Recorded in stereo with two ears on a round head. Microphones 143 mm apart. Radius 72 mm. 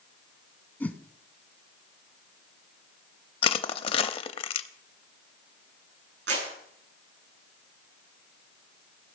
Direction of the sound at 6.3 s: 85° right.